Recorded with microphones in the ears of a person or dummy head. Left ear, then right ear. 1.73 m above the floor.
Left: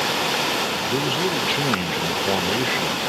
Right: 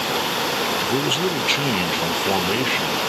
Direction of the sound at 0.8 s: 25° right (ahead or behind).